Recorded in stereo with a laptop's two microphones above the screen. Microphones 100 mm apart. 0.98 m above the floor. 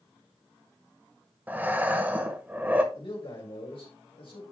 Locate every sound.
1.5 s breathing: 15° right (ahead or behind), 0.9 m
2.9 s a man speaking: 60° left (ahead or behind), 3.5 m